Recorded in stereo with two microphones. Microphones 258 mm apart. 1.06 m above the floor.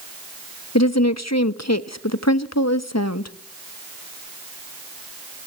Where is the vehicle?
No vehicle in this recording.